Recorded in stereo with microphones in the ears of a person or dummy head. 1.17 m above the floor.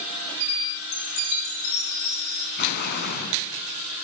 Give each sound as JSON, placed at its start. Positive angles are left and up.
{"t": 0.9, "sound": "a chime", "side_deg": 85, "distance_m": 5.5}
{"t": 2.6, "sound": "an explosion", "side_deg": 55, "distance_m": 3.5}